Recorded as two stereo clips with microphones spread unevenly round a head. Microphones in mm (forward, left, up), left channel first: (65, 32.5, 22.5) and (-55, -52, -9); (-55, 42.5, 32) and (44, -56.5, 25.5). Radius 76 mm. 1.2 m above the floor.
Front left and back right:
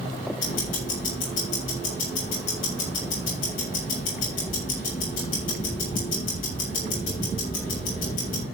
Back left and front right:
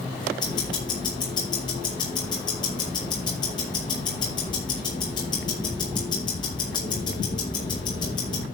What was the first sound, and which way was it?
Ticking, 75° left.